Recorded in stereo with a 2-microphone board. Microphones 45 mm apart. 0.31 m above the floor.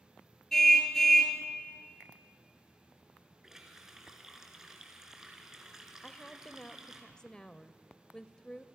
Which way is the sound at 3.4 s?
10° right (ahead or behind).